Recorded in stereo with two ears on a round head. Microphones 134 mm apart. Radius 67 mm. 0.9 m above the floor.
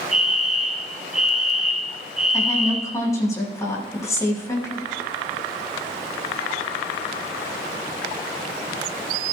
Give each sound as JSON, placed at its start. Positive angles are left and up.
{"t": 0.1, "sound": "a fire alarm", "side_deg": -5, "distance_m": 1.6}
{"t": 2.3, "sound": "a woman speaking", "side_deg": 20, "distance_m": 6.5}